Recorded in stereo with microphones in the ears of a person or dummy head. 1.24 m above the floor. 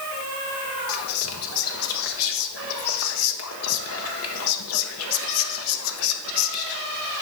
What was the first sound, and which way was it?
Whispering, 75° left (ahead or behind).